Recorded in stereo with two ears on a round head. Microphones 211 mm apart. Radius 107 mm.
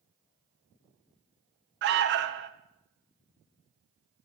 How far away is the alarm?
About 0.7 m.